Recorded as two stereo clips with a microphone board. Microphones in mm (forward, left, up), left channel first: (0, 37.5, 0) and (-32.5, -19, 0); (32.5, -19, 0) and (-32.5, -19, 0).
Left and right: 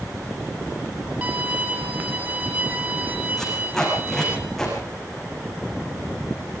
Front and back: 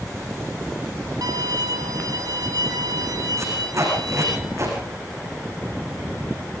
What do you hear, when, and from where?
1.2 s a violin: 175° left, 2 m
3.4 s tape being pulled: 145° left, 9.5 m